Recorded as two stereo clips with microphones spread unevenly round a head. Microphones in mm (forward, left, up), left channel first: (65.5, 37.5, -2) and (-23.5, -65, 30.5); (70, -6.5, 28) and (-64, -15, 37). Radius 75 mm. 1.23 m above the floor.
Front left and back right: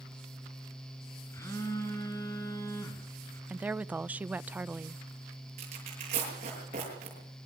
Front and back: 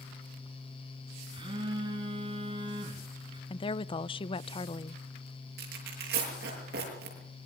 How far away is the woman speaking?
About 0.6 m.